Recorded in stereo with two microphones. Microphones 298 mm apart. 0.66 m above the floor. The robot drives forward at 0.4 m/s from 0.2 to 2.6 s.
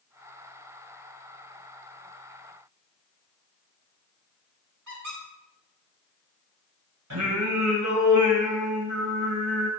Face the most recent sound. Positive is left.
turn(degrees=-70)  # may be behind; listen again after turning